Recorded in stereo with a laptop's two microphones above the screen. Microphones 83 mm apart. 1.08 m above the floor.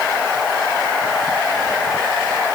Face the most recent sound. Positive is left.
No sound to turn to.